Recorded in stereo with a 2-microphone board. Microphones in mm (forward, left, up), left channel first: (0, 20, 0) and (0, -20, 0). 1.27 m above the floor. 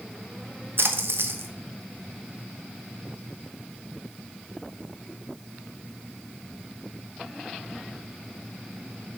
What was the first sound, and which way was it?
A splash, 70° right (ahead or behind).